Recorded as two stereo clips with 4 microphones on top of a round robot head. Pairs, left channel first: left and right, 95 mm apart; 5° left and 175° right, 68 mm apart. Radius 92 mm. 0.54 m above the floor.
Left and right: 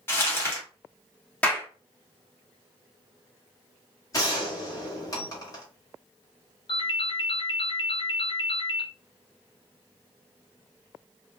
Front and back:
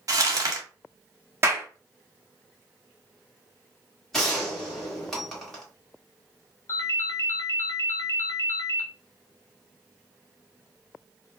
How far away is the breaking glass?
No breaking glass in this recording.